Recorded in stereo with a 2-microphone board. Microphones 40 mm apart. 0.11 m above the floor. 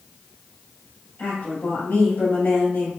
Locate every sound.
1.2 s a woman speaking: 55° left (ahead or behind), 2.0 m